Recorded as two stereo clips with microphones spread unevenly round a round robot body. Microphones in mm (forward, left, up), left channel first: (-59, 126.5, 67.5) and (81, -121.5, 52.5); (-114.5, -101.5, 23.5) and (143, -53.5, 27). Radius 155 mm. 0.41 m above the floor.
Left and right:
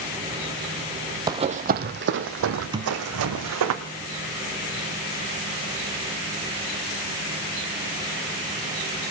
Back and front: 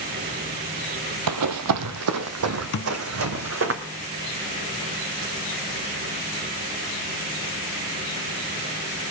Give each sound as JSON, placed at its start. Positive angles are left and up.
{"t": 1.3, "sound": "running footsteps", "azimuth_deg": 15, "distance_m": 0.8}
{"t": 2.7, "sound": "a thud", "azimuth_deg": -135, "distance_m": 1.1}